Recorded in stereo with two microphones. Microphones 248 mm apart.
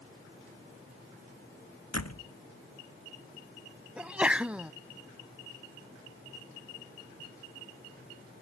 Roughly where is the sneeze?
Centre.